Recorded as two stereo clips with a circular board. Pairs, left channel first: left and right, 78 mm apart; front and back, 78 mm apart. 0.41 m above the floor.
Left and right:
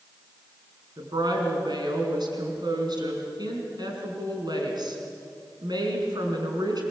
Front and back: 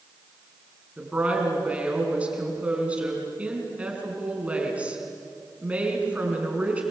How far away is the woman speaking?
About 5 m.